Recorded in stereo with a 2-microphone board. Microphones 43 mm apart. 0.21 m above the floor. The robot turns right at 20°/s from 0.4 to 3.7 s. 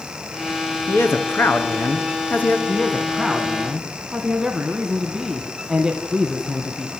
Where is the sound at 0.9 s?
100° left, 2.5 m; by 2.6 s 130° left, 2.5 m.